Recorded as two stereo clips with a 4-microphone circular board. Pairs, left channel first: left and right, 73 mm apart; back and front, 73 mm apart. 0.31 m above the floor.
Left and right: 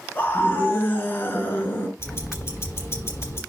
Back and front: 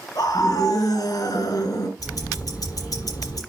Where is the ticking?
145° left, 5.5 m.